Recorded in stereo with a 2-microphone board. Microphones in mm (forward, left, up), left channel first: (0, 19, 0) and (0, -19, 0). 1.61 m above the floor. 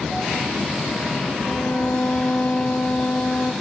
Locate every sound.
1.4 s a violin: 85° left, 2 m